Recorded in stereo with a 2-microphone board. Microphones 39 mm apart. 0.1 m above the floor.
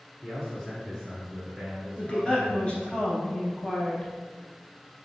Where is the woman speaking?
35° left (ahead or behind), 1.4 m.